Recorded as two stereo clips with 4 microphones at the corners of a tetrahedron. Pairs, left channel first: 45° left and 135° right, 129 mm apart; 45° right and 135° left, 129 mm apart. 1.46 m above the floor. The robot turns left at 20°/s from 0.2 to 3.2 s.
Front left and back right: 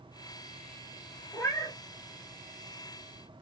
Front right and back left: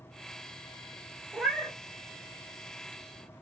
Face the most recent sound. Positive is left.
turn(degrees=20)